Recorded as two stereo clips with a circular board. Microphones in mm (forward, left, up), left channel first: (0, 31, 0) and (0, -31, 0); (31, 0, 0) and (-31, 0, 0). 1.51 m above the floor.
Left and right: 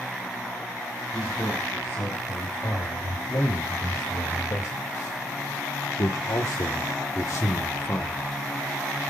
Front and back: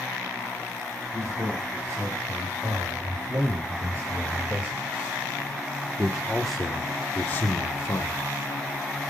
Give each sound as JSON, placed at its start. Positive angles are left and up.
{"t": 1.1, "sound": "a man speaking", "azimuth_deg": 135, "distance_m": 5.0}